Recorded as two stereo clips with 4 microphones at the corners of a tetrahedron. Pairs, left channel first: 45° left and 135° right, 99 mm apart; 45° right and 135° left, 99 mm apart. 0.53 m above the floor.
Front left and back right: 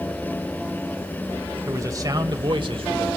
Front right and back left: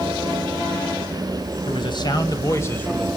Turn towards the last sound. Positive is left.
turn(degrees=-125)